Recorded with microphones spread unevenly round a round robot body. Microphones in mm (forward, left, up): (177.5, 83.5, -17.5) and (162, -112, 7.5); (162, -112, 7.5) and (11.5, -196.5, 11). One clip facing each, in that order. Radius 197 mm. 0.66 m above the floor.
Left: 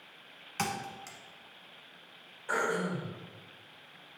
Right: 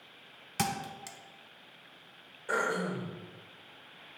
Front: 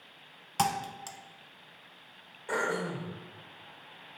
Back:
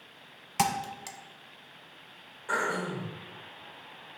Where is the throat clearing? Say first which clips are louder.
Even, front 1 dB; 40° right, 2.5 m.